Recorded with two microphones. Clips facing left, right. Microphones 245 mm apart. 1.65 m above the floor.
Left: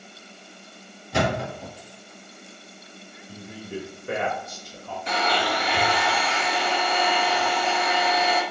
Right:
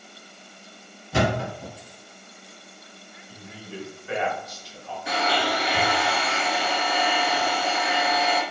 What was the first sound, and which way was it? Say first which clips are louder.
A thud: right 1 dB; 5° right (ahead or behind).